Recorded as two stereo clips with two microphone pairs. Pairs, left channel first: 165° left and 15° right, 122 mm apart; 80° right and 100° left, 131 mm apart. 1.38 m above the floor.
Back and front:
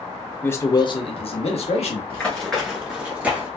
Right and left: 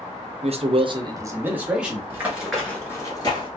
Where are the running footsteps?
110° left, 1.4 m; by 3.5 s 75° right, 1.6 m.